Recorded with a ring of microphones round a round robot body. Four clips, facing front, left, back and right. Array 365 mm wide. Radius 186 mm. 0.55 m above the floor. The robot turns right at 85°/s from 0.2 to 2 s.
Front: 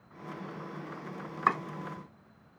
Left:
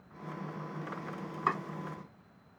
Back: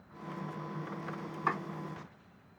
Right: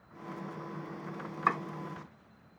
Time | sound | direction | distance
1.5 | chopping | 10° right | 1.7 m